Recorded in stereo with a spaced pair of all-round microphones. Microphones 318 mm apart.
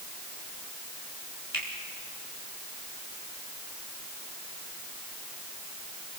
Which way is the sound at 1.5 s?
80° right.